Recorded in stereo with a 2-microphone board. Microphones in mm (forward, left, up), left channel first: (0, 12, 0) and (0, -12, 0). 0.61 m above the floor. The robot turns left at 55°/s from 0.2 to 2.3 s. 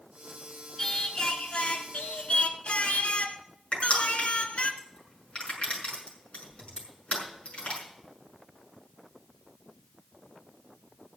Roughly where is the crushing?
Left.